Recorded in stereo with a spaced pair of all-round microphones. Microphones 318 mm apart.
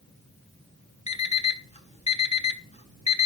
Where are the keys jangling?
I don't hear keys jangling.